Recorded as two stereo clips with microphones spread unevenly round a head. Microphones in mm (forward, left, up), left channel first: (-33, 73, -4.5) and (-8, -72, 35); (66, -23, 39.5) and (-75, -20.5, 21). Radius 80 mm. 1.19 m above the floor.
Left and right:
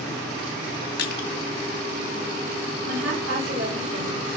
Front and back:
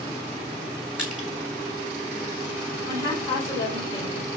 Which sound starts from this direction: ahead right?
A woman speaking, at 2.9 s.